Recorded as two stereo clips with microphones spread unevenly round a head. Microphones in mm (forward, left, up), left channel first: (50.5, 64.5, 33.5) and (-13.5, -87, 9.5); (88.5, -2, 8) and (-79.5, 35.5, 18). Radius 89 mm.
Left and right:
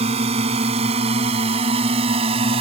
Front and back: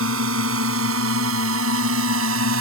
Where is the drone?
170° right; by 2.6 s 175° right.